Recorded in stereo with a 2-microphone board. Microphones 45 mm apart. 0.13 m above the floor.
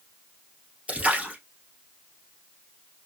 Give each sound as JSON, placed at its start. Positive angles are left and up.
{"t": 0.9, "sound": "a splash", "side_deg": -35, "distance_m": 1.9}